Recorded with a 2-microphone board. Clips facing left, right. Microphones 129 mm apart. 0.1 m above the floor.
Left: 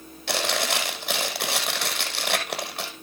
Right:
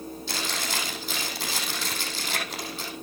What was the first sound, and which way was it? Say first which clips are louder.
Chewing: left 8 dB; 65° left (ahead or behind).